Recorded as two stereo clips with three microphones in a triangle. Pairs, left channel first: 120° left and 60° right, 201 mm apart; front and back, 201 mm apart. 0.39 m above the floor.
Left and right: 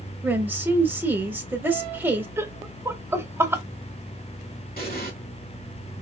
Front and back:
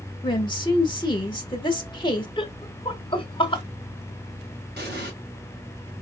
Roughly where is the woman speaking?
Ahead.